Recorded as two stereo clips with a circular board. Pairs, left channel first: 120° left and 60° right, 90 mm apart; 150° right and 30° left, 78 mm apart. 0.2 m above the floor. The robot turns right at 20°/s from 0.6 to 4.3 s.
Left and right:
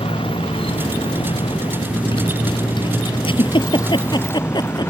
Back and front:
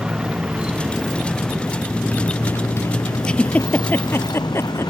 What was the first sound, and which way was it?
A motorcycle, 110° left.